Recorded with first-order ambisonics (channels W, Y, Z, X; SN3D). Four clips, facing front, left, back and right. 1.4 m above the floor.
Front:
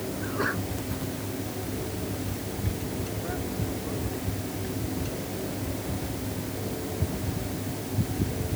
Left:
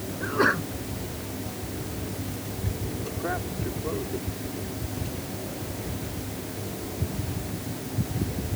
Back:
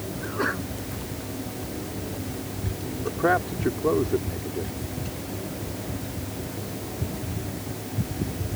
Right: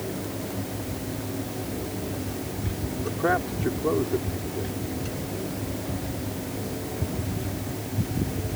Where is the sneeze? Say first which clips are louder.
Left 9 dB, back 2 dB; 100° left.